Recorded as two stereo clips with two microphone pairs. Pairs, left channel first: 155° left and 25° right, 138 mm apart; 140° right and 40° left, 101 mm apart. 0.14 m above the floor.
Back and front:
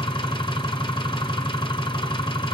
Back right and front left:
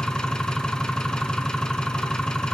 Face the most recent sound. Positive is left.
turn(degrees=145)